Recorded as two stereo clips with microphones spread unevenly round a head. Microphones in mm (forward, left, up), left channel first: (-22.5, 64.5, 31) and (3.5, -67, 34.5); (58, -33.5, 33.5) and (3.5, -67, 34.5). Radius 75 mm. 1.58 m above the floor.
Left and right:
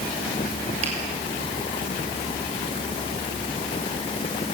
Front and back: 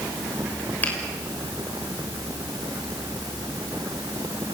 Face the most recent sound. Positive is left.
turn(degrees=-30)